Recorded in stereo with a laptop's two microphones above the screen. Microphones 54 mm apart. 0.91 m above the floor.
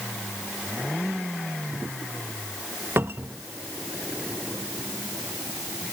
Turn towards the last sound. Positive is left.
turn(degrees=-50)  # may be behind; listen again after turning